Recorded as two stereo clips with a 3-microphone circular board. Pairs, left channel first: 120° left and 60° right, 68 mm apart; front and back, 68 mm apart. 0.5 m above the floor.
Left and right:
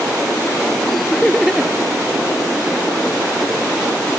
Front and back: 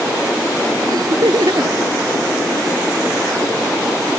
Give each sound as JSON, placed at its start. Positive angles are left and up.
{"t": 0.9, "sound": "laughter", "azimuth_deg": -150}